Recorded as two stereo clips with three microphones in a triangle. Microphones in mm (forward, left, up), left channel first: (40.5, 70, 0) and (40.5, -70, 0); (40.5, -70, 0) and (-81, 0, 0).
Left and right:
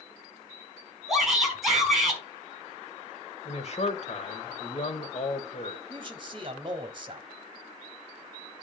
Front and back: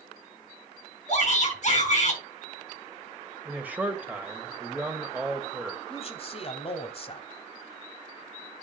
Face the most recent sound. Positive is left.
turn(degrees=-50)